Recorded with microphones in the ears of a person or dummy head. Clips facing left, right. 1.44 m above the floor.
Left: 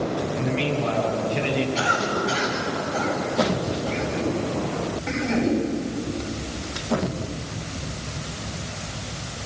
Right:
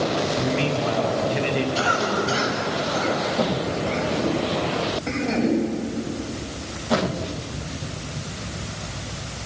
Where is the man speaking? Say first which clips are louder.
Right 1 dB; 25° right (ahead or behind), 3.5 m.